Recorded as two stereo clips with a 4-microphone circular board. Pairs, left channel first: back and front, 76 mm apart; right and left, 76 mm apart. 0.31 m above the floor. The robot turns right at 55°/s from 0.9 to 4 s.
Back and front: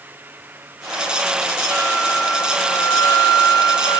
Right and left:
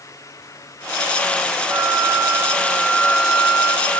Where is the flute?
75° left, 2 m; by 4.0 s 155° right, 2 m.